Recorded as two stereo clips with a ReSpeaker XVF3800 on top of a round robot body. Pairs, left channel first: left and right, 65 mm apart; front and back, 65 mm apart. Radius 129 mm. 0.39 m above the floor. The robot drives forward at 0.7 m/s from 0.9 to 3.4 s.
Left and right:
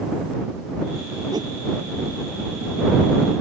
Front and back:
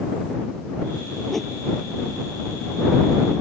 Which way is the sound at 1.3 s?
85° right.